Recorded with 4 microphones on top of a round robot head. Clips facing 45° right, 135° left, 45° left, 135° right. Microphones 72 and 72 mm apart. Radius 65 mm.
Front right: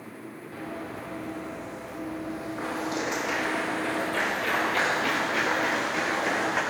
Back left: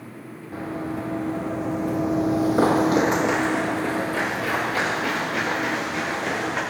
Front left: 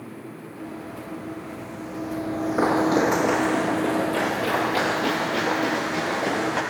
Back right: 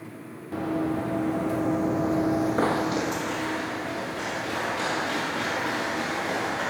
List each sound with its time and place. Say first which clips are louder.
0.5 s running footsteps: back left 8 dB, back right 11 dB; 160° right, 3 m; by 6.6 s 45° left, 5.5 m